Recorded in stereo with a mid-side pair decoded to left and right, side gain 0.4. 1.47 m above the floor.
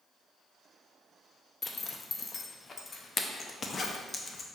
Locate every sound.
1.6 s a zipper: 40° left, 0.6 m